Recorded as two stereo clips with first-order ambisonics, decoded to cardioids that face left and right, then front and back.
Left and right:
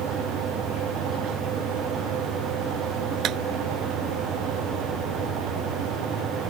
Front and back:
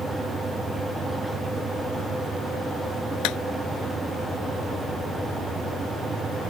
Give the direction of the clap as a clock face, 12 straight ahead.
1 o'clock.